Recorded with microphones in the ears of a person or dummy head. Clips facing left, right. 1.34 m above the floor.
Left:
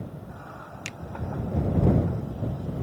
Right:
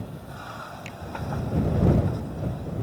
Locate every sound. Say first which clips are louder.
0.8 s a finger snap: right 2 dB; 75° left (ahead or behind)